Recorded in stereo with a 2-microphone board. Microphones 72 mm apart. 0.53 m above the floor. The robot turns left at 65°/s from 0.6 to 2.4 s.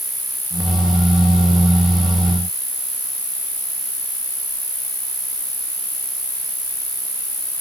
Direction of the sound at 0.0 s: Straight behind.